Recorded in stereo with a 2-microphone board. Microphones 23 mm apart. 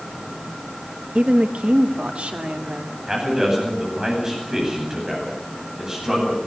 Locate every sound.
1.1 s a woman speaking: 60° right (ahead or behind), 1.3 m; by 3.0 s 85° right, 4 m
3.1 s a man speaking: 25° right (ahead or behind), 9.5 m